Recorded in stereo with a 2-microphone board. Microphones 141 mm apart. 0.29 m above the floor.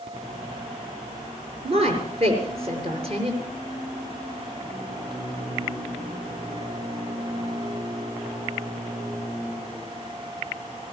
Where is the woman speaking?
45° right (ahead or behind), 5.5 m.